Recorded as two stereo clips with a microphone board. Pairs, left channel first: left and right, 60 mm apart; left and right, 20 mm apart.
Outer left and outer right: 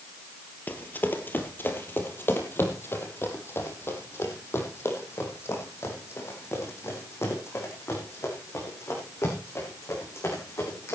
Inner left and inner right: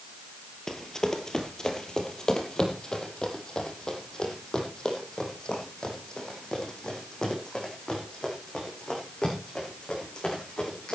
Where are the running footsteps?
30° left (ahead or behind), 2.0 m; by 11.0 s 50° left (ahead or behind), 7 m.